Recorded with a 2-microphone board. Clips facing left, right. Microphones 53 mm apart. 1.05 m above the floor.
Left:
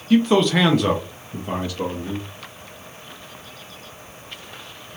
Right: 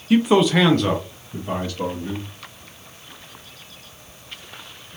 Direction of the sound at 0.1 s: 15° right (ahead or behind).